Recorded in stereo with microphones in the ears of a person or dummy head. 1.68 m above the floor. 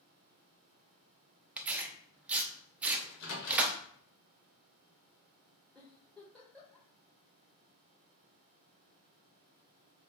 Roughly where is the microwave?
Left.